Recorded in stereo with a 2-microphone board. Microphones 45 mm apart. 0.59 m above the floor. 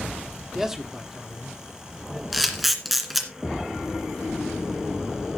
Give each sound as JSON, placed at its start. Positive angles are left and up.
{"t": 0.6, "sound": "a man speaking", "side_deg": -10, "distance_m": 1.5}
{"t": 2.3, "sound": "a camera shutter", "side_deg": -5, "distance_m": 2.0}